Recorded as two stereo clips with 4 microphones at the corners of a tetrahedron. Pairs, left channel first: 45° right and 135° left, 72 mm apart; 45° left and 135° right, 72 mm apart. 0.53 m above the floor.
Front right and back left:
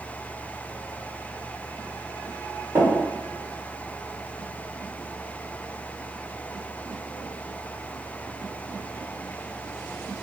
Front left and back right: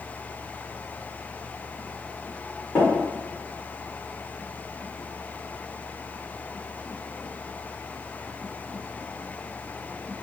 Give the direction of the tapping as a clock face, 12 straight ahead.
9 o'clock.